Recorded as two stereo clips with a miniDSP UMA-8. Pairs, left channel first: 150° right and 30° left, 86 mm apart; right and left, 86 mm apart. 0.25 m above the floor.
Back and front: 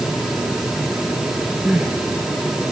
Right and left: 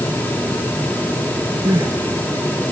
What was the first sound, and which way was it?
Crying, 105° left.